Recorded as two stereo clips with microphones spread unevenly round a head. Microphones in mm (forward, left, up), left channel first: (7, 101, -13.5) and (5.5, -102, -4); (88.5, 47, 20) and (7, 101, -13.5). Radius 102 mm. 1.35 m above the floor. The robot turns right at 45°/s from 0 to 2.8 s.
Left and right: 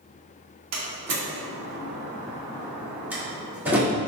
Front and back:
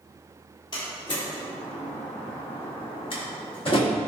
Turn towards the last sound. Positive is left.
turn(degrees=-10)